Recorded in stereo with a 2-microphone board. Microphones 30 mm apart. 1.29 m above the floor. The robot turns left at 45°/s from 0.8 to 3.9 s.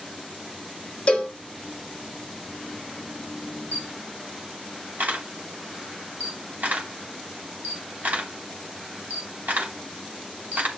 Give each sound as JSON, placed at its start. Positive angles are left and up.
{"t": 1.1, "sound": "a cowbell", "side_deg": 45, "distance_m": 3.5}
{"t": 3.7, "sound": "a camera shutter", "side_deg": -80, "distance_m": 3.0}